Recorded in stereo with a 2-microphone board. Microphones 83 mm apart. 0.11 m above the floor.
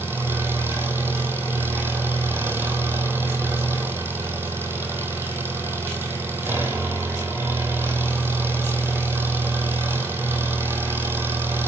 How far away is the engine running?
About 1.6 m.